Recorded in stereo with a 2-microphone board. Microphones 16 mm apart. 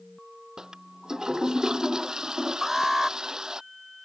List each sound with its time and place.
0.6 s a toilet flushing: 45° right (ahead or behind)
2.6 s an alarm: 10° right (ahead or behind)